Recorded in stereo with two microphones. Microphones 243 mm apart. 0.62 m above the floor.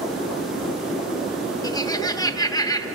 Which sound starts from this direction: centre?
Laughter, at 1.6 s.